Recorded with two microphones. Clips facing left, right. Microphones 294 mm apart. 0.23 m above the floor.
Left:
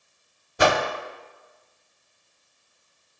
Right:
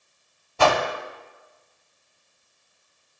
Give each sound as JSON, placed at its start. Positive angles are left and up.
{"t": 0.6, "sound": "a whoosh", "side_deg": 20, "distance_m": 0.6}